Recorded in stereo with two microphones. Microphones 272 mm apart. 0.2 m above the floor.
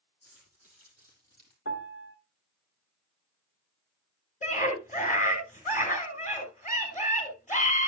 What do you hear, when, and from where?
0.2 s keys jangling: 60° left (ahead or behind), 6 m; by 1.6 s 75° left (ahead or behind), 5 m
1.6 s a piano: 45° left (ahead or behind), 1.3 m
4.4 s a scream: 25° left (ahead or behind), 3.5 m